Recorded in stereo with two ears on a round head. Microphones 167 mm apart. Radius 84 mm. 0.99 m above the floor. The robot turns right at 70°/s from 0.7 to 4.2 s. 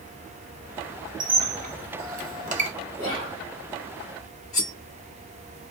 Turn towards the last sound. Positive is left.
turn(degrees=70)  # may be behind; listen again after turning